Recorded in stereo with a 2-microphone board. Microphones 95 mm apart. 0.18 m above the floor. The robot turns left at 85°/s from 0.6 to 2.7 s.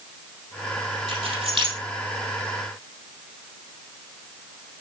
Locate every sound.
1.1 s keys jangling: 70° right (ahead or behind), 3.5 m; by 1.8 s 50° right (ahead or behind), 3.5 m